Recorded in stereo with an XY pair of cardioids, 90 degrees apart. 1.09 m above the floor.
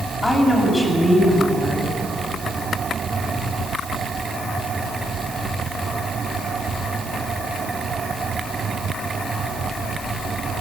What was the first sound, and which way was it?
A woman speaking, 15° left.